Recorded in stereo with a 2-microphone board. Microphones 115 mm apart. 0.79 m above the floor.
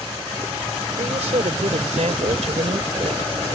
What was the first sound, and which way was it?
A woman speaking, 75° right (ahead or behind).